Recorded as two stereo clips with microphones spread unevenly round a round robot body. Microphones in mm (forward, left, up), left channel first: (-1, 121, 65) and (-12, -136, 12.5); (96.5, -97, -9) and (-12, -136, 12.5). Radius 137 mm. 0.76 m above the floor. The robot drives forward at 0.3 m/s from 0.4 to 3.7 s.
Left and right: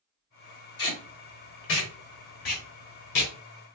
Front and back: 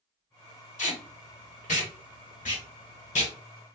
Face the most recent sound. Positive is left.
turn(degrees=75)